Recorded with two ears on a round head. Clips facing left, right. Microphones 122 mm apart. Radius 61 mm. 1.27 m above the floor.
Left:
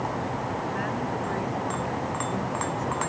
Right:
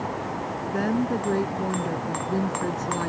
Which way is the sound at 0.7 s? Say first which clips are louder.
Right 5 dB; 45° right (ahead or behind).